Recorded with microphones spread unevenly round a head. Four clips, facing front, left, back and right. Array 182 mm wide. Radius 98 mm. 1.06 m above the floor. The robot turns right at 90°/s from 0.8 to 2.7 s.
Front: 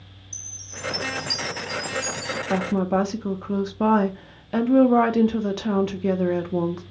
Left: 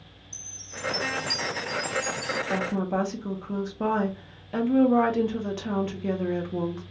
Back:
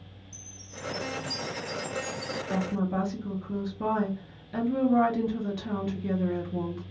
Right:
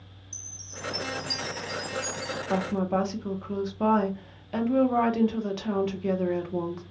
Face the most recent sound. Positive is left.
turn(degrees=0)